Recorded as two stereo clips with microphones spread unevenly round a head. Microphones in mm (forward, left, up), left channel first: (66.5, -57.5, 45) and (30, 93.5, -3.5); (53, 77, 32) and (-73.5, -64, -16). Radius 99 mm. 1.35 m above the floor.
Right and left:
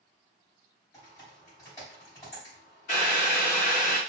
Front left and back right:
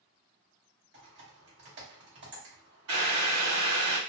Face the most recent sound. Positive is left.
turn(degrees=-115)